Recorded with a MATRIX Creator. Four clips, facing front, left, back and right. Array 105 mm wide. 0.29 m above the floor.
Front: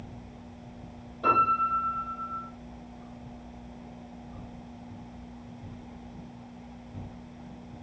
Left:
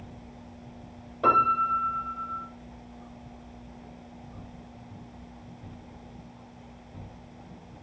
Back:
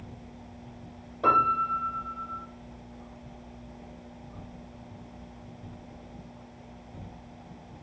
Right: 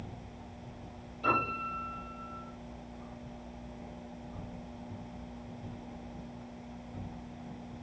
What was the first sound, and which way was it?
A piano, 105° left.